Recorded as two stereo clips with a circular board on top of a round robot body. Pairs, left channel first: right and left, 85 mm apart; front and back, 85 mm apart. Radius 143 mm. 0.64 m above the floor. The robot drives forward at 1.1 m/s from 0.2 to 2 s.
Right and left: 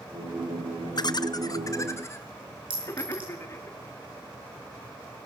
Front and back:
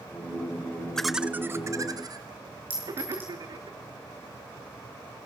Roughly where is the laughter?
Right.